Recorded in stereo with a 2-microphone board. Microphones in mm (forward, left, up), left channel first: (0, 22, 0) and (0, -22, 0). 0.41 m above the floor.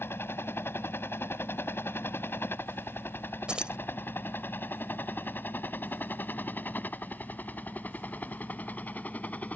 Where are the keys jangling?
20° right (ahead or behind).